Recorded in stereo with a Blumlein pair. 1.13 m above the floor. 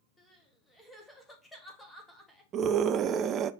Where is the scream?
25° right, 0.7 m.